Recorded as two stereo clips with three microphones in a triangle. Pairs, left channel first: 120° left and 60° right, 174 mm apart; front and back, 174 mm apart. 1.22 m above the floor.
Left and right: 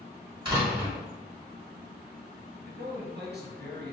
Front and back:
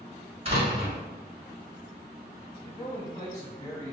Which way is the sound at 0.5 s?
125° right.